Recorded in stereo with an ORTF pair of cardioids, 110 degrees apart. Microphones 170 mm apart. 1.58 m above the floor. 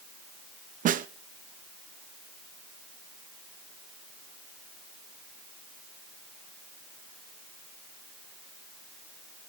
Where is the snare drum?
50° right, 0.9 m.